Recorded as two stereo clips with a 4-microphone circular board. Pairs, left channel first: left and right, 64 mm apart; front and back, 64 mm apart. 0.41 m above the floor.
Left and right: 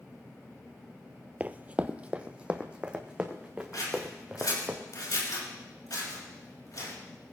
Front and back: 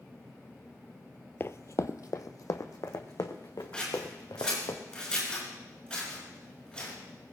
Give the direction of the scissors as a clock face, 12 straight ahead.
9 o'clock.